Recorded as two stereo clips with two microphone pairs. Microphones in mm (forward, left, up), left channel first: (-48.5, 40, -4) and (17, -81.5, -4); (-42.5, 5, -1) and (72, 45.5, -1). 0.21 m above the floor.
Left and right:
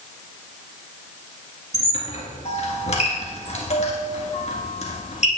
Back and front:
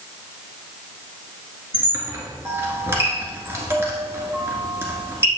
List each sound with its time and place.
1.7 s a squeak: 90° left, 1.6 m